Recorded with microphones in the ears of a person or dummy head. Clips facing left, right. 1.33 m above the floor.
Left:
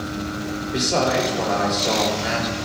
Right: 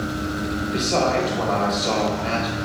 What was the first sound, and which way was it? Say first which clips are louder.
A man speaking: left 1 dB; 15° left (ahead or behind).